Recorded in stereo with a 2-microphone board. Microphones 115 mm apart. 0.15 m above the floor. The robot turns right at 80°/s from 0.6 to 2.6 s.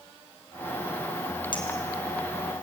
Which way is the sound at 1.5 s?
45° left (ahead or behind).